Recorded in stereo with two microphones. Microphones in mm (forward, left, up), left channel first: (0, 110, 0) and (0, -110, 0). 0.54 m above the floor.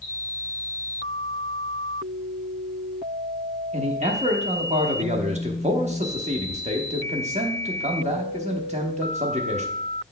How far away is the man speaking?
About 0.8 m.